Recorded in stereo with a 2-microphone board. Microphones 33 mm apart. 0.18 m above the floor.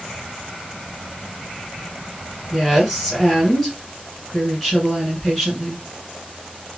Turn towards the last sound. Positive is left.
turn(degrees=0)  # may be behind; listen again after turning